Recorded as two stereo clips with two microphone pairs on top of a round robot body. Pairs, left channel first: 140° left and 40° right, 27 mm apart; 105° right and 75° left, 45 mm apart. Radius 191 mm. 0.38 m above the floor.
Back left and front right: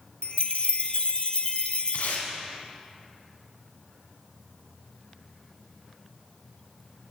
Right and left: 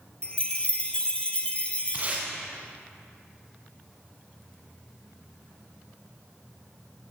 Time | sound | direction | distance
0.2 | a chime | 175° right | 1.0 m
1.9 | tape being pulled | 130° left | 1.5 m